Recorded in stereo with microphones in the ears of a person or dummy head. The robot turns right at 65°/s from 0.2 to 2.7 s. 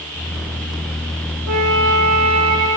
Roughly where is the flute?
Right.